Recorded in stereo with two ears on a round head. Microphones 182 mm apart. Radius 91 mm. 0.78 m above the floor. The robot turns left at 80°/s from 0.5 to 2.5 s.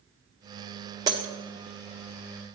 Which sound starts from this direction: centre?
Breaking glass, at 1.1 s.